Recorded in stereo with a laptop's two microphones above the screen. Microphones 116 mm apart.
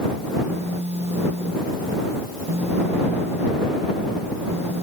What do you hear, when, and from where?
0.5 s a phone buzzing: 80° right